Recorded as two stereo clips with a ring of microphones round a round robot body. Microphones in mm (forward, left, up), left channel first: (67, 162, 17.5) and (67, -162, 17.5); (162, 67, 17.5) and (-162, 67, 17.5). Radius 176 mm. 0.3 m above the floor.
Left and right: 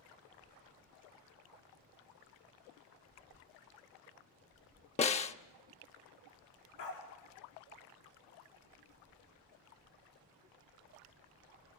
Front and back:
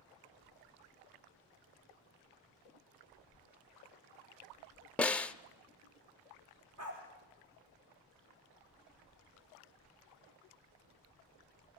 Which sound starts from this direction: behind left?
A dog barking, at 6.8 s.